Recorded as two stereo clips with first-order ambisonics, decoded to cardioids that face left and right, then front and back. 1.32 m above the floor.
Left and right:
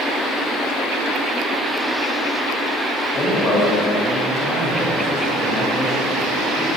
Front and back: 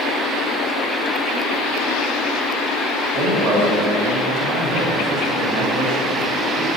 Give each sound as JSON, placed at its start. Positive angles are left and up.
{"t": 3.1, "sound": "a man speaking", "azimuth_deg": 180, "distance_m": 2.5}